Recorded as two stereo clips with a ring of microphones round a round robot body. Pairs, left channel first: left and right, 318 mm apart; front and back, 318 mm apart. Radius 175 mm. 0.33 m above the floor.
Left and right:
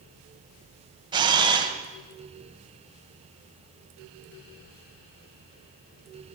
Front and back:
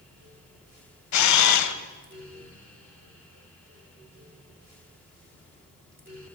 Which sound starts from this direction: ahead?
A camera shutter, at 1.1 s.